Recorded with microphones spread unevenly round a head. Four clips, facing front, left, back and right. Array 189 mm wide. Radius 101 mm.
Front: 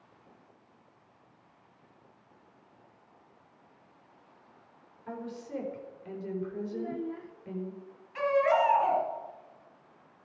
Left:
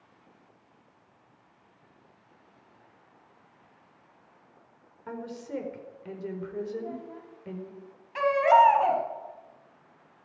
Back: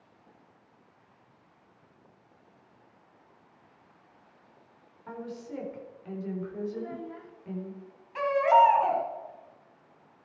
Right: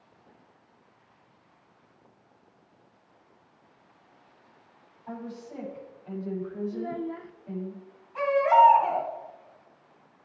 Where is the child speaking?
65° right, 0.9 m.